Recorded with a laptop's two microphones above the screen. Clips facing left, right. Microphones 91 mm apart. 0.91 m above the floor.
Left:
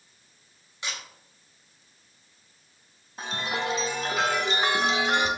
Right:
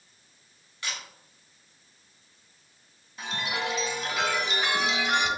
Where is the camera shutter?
20° left (ahead or behind), 1.5 m.